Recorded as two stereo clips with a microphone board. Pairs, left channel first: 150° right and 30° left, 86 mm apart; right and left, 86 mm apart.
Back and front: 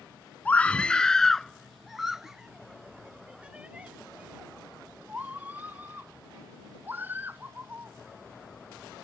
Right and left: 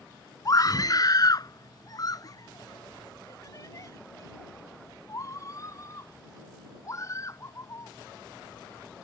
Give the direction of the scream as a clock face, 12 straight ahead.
3 o'clock.